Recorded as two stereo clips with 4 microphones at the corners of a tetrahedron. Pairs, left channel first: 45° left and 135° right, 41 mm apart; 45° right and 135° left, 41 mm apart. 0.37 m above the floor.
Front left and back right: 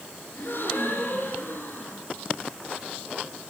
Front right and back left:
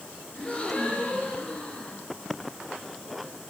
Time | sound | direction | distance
0.3 | a gasp | 20° left | 3.5 m